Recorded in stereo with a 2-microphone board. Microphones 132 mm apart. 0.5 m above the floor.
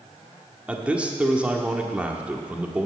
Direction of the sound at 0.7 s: 10° right (ahead or behind).